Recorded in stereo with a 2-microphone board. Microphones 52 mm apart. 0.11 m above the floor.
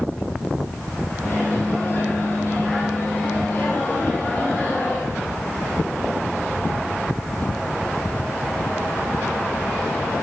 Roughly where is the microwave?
Left.